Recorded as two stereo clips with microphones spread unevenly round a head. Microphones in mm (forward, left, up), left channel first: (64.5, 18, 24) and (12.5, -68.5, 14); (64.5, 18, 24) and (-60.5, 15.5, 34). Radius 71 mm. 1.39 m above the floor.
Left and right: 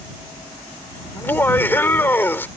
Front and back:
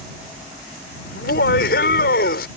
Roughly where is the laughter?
Ahead.